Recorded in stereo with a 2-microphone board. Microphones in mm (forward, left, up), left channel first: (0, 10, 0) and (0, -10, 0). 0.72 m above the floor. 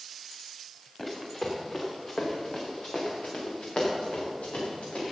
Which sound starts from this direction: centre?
Running footsteps, at 1.0 s.